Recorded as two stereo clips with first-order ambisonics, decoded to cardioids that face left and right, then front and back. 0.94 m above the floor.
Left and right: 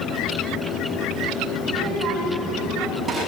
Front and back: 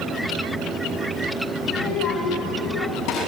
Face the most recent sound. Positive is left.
turn(degrees=-15)